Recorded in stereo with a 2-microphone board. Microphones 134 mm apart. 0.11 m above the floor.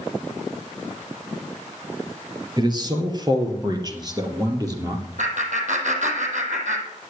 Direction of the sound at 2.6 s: 35° right (ahead or behind).